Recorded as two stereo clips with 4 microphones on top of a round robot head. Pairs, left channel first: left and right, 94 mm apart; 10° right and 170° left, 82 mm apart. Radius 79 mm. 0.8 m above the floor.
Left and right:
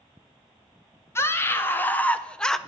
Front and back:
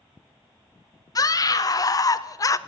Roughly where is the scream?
Ahead left.